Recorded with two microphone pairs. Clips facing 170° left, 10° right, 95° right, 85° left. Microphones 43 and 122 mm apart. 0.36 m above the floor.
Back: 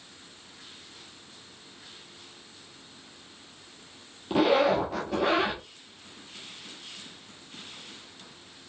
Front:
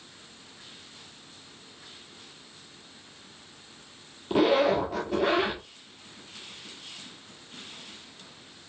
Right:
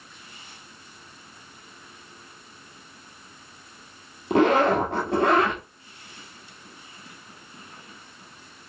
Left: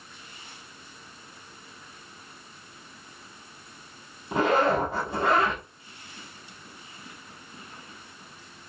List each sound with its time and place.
4.3 s a zipper: 100° right, 1.2 m